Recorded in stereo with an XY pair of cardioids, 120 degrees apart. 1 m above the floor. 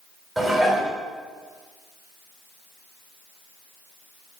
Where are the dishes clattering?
15° right, 2 m.